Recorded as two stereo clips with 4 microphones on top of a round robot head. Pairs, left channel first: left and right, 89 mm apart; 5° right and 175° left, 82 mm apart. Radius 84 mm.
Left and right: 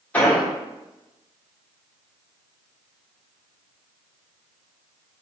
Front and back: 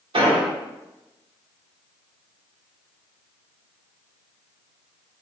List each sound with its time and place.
0.1 s an explosion: 165° left, 1.7 m